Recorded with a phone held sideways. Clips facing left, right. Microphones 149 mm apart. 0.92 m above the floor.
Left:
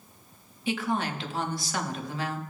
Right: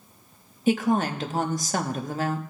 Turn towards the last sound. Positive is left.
turn(degrees=-45)  # may be behind; listen again after turning